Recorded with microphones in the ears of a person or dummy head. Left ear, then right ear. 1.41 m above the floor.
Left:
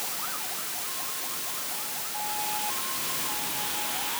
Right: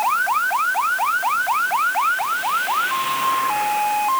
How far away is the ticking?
I don't hear ticking.